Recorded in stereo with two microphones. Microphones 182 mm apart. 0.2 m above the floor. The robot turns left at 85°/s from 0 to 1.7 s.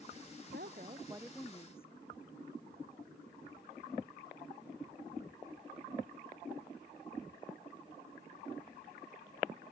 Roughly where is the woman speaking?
Right.